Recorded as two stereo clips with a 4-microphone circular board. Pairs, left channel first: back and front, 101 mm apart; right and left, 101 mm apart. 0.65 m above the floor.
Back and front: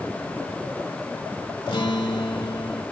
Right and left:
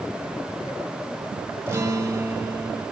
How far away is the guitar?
About 1.7 m.